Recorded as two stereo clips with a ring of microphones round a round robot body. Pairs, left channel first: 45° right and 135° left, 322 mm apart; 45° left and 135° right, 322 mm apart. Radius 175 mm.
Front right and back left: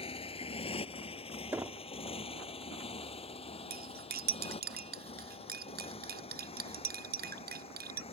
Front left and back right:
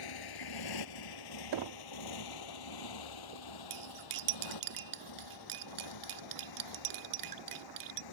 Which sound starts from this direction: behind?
Cutlery clinking, at 3.7 s.